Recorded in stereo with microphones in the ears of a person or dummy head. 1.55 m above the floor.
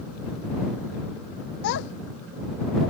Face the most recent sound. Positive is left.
turn(degrees=70)  # may be behind; listen again after turning